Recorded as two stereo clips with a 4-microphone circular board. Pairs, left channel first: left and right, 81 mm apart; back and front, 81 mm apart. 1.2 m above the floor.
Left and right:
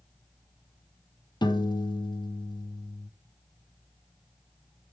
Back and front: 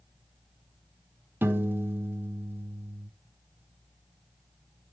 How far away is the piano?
About 1.2 m.